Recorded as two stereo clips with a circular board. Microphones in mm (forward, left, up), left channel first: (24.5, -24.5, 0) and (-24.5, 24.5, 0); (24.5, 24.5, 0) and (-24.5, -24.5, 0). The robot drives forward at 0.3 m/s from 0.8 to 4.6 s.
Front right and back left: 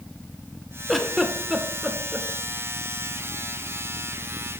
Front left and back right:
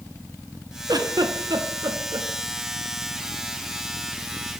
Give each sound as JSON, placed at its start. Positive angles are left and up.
{"t": 0.9, "sound": "a giggle", "azimuth_deg": -130, "distance_m": 0.6}